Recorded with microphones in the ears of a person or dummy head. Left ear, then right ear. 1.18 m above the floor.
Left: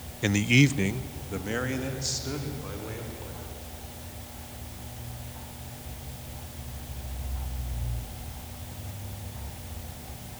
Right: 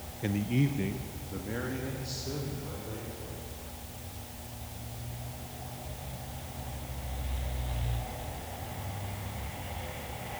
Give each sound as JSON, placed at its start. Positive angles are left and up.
{"t": 0.2, "sound": "a man speaking", "side_deg": 30, "distance_m": 0.6}